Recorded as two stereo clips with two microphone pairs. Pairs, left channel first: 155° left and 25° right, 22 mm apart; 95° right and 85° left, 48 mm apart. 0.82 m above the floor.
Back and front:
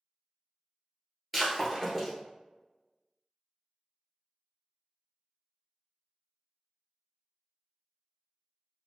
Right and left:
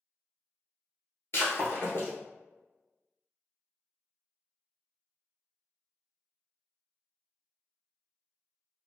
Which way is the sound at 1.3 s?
115° right.